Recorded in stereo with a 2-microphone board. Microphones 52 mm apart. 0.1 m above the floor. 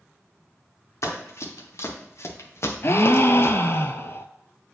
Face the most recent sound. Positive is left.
turn(degrees=55)  # may be behind; listen again after turning